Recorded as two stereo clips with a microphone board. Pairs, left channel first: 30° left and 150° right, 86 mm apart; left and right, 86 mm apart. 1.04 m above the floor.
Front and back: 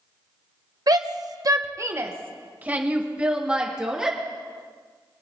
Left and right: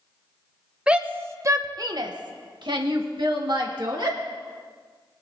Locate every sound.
0.9 s a shout: 165° right, 1.1 m; by 4.2 s 65° right, 2.5 m